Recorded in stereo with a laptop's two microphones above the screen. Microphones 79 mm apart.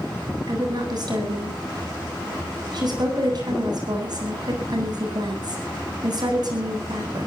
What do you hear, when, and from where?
0.5 s a woman speaking: 55° right (ahead or behind), 8.5 m